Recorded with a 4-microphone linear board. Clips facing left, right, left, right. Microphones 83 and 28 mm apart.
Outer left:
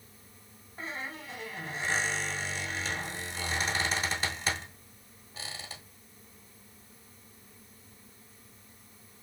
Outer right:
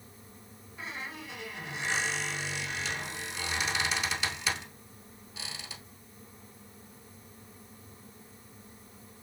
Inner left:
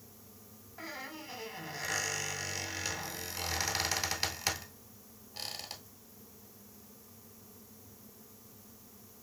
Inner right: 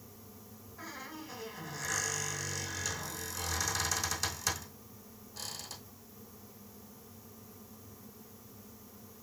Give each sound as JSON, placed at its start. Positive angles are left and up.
{"t": 0.8, "sound": "a squeak", "side_deg": 40, "distance_m": 1.2}